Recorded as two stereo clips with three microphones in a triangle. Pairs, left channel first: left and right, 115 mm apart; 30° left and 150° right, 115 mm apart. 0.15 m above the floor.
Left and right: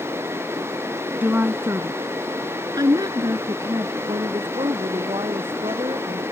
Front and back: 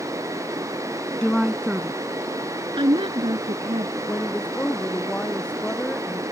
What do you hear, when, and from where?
1.2 s a woman speaking: 40° right; by 4.0 s 145° right
4.1 s a woman speaking: 45° right